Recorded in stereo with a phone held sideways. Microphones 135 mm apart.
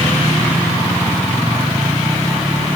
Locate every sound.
Only background noise.